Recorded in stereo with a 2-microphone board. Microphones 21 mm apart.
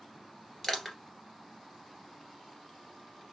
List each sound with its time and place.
0.6 s crushing: 15° left (ahead or behind), 2 m